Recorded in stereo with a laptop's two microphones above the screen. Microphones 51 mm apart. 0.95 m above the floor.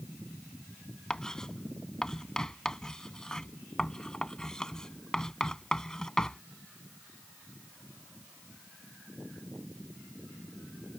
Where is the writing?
10° left (ahead or behind).